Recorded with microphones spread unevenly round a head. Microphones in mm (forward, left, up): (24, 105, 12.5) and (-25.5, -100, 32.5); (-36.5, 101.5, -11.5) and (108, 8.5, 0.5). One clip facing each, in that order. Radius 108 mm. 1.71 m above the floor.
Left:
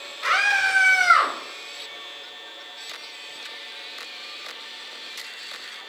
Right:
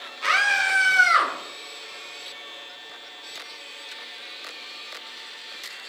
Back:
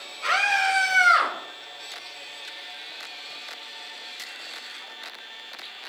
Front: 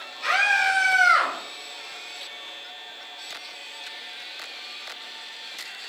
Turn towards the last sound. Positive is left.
turn(degrees=-135)